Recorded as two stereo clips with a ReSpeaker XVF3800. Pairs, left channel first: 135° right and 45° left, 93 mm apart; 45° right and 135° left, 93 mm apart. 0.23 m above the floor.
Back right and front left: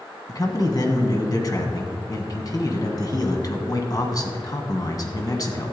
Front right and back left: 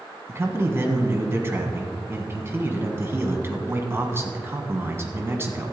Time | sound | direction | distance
0.3 | a man speaking | 170° right | 1.6 m